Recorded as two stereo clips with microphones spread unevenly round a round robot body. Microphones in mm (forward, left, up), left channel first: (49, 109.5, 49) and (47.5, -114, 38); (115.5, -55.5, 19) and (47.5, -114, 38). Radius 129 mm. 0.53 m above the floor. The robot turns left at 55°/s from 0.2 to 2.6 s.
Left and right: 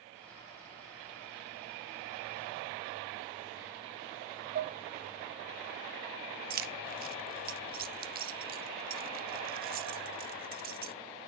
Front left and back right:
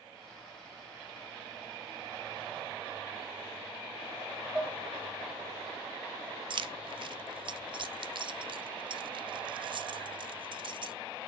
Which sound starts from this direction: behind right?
Keys jangling, at 6.5 s.